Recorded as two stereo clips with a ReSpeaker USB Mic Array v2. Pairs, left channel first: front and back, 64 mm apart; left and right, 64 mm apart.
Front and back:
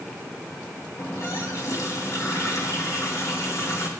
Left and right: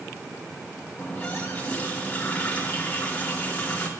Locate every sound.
1.0 s a running tap: 25° left, 3 m